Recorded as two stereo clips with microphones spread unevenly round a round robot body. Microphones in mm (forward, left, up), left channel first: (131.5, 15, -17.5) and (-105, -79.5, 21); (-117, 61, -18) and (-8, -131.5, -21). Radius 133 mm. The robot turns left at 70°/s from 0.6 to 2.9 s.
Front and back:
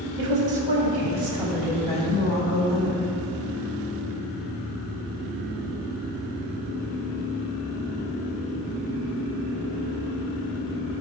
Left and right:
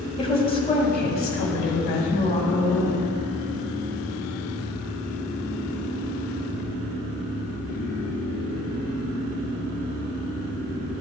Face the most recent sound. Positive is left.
turn(degrees=20)